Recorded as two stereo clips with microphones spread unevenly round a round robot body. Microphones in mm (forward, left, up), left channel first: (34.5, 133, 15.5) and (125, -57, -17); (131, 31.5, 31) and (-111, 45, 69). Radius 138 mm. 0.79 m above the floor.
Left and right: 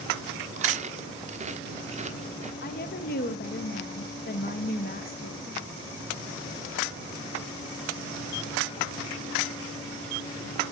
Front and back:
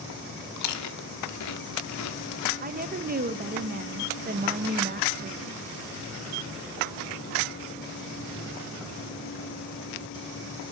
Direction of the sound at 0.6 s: 5° right.